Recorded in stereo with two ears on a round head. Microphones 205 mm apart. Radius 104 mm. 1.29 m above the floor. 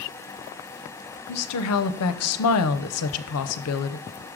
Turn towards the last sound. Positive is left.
turn(degrees=70)  # may be behind; listen again after turning